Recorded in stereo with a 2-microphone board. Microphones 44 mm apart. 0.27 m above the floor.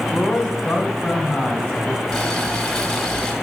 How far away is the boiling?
About 1.2 m.